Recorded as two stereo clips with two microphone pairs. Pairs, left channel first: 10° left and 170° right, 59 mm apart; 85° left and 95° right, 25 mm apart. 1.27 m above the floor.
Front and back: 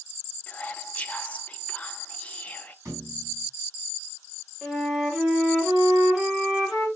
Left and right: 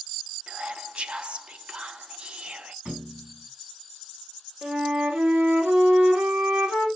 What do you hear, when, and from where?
0.5 s whispering: 55° right, 0.6 m
2.9 s a thud: 130° right, 3.5 m
4.6 s a flute: 85° right, 2.5 m